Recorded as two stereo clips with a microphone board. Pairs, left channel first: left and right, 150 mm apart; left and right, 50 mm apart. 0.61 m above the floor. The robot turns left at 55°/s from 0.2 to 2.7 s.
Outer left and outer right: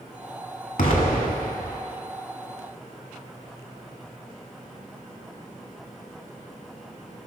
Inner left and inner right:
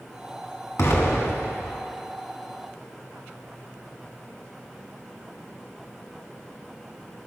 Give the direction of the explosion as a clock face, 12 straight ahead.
8 o'clock.